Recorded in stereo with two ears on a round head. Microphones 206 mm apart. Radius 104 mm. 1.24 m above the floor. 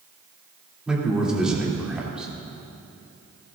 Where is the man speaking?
5° right (ahead or behind), 3 m.